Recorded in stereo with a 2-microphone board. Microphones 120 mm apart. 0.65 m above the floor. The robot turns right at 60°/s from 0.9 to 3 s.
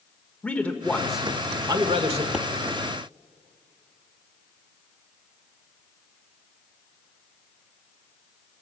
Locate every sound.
0.4 s a man speaking: 170° left, 1.6 m; by 2.2 s 110° right, 1.6 m
2.3 s a pop: 5° right (ahead or behind), 1.1 m; by 2.5 s 5° left (ahead or behind), 1.1 m